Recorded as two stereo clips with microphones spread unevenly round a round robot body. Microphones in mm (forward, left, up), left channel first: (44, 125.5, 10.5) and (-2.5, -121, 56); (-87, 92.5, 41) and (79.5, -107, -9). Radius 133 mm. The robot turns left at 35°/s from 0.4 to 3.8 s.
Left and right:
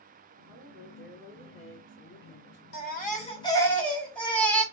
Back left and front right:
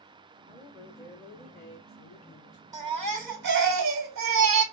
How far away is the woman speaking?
About 2 m.